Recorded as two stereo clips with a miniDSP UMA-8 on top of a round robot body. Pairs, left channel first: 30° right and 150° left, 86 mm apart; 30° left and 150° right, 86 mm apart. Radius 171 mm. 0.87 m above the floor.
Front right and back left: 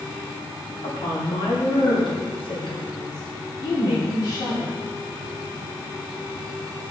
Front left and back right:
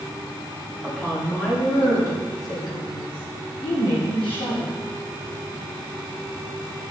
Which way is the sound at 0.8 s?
45° right.